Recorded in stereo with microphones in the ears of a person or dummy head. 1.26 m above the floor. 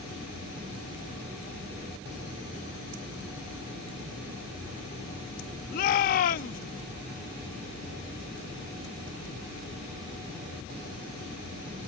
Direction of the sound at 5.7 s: 50° left (ahead or behind).